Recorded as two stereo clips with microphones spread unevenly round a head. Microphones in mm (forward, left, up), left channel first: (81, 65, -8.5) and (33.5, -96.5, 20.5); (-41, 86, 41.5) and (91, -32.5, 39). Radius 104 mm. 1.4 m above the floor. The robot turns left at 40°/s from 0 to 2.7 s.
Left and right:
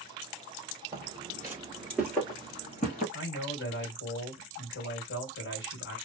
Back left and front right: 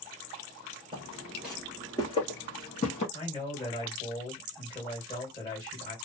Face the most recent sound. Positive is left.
turn(degrees=65)